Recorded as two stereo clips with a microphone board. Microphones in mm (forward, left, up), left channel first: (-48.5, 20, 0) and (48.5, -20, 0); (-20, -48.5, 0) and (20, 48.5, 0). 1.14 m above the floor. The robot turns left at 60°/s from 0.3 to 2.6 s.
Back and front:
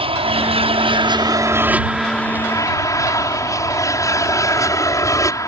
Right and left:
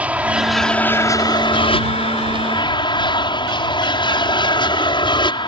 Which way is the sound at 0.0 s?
10° right.